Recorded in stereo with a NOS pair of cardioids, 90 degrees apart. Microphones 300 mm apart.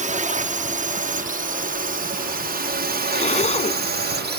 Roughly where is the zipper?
Ahead left.